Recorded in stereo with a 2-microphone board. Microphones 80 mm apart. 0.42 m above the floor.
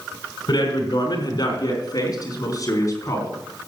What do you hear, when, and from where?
0.5 s a man speaking: 55° left (ahead or behind), 4 m; by 3.4 s 35° left (ahead or behind), 3.5 m